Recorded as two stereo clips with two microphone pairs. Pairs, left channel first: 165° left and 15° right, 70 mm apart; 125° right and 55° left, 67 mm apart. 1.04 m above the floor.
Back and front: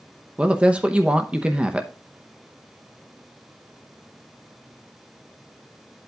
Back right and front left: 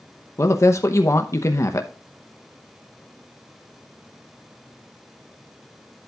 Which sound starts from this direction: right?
A woman speaking, at 0.4 s.